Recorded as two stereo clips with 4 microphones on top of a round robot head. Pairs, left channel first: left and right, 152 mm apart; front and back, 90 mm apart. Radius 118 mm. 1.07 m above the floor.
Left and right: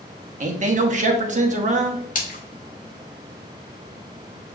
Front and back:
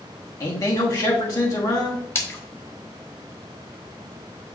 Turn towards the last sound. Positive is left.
turn(degrees=60)